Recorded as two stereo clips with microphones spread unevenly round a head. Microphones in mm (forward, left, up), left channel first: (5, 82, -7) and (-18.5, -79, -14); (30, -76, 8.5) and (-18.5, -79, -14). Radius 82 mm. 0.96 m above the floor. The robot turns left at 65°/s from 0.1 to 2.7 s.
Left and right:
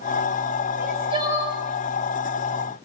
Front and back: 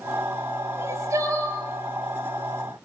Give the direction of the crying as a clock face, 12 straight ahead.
5 o'clock.